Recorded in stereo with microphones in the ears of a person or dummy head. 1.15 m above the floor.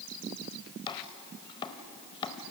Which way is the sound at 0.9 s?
20° left (ahead or behind).